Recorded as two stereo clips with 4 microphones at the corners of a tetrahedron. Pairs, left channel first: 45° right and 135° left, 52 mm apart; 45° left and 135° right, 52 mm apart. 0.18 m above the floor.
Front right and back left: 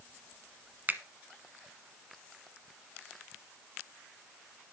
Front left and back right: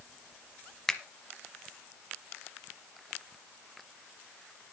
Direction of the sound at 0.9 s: 115° left.